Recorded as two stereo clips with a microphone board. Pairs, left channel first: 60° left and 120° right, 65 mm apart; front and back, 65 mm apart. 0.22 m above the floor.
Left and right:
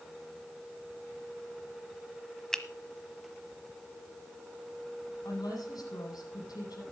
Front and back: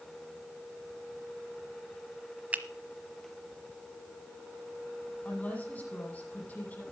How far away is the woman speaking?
About 8.5 m.